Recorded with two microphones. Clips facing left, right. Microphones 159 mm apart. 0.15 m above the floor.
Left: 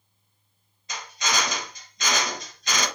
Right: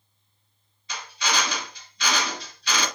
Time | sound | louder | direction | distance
0.9 | a drill | even | 45° left (ahead or behind) | 2 m